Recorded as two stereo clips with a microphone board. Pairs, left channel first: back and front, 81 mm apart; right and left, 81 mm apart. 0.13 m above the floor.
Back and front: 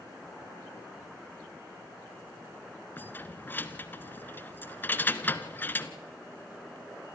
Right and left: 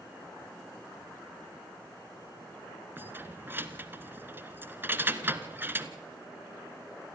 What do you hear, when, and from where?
3.0 s keys jangling: 135° left, 1.1 m